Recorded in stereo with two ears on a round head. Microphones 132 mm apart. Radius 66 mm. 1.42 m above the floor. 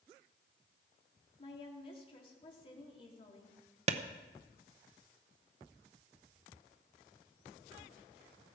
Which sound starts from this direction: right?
A clap, at 3.9 s.